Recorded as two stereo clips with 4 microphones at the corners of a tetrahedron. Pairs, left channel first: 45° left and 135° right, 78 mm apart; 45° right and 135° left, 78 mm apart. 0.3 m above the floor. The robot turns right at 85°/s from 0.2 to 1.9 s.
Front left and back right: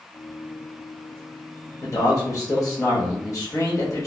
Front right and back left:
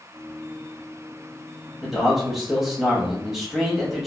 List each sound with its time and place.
1.8 s a man speaking: 40° left, 1.2 m; by 4.1 s 50° left, 1.2 m